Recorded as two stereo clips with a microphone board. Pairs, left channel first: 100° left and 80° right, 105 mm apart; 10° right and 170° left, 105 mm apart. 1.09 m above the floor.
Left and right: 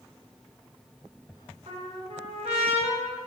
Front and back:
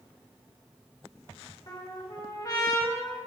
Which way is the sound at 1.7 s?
65° right.